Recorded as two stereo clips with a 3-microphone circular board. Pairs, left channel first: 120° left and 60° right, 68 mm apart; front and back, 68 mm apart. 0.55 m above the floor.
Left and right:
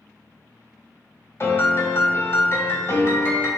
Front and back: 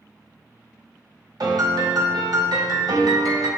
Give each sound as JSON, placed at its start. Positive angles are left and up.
{"t": 1.4, "sound": "a piano", "azimuth_deg": 170, "distance_m": 1.2}